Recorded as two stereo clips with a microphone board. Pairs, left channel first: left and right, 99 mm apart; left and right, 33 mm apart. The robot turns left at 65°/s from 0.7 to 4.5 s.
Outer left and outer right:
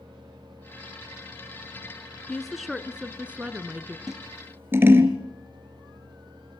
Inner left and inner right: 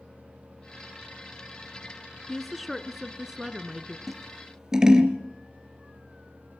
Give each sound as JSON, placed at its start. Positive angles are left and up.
{"t": 2.3, "sound": "a woman speaking", "side_deg": 5, "distance_m": 1.0}
{"t": 4.1, "sound": "scissors", "side_deg": -5, "distance_m": 2.0}